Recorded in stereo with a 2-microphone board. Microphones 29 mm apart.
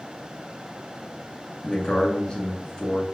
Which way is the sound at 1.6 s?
25° left (ahead or behind).